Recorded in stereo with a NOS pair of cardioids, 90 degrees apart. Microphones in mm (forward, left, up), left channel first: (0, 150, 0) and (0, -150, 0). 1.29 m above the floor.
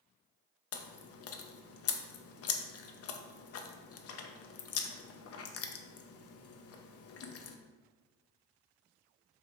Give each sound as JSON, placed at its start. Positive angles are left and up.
{"t": 0.7, "sound": "chewing", "azimuth_deg": 50, "distance_m": 0.5}